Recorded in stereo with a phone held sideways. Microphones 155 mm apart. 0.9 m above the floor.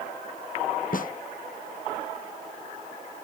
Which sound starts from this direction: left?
A snare drum, at 0.9 s.